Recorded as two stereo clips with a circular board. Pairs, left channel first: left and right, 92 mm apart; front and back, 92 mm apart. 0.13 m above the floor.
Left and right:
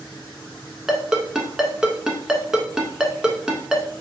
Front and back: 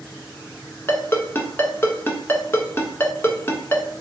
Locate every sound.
0.9 s a ringtone: 15° right, 0.6 m